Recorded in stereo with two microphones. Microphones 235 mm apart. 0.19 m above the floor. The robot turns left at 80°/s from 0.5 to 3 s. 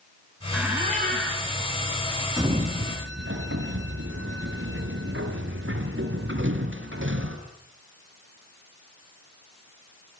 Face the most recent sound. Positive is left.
turn(degrees=-55)  # may be behind; listen again after turning